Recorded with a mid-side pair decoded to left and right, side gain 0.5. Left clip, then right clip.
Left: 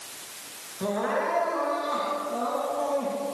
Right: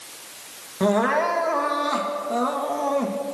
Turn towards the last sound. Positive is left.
turn(degrees=-60)